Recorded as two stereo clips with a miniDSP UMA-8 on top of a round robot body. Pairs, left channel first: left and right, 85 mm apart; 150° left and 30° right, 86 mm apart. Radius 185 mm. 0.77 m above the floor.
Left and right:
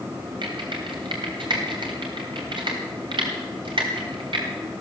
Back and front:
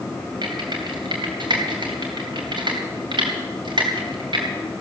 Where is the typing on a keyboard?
60° right, 3 m.